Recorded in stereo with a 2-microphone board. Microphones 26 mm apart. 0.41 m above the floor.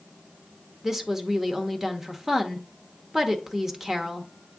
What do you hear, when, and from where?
0.8 s a woman speaking: 15° right (ahead or behind), 0.8 m